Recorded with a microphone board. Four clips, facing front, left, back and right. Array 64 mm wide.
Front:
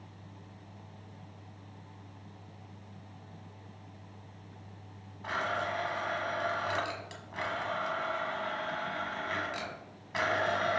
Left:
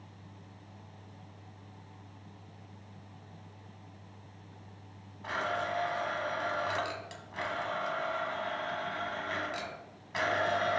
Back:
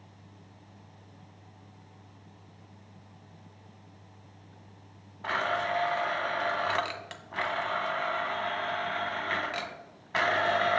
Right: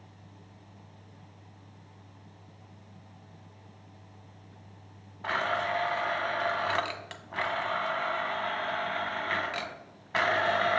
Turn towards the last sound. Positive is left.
turn(degrees=-125)